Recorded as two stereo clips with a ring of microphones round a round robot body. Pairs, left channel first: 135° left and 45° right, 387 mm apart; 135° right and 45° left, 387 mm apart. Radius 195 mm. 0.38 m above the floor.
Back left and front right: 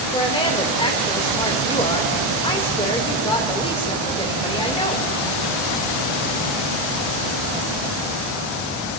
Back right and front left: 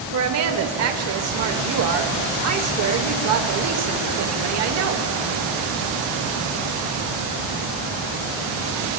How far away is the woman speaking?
About 1.3 m.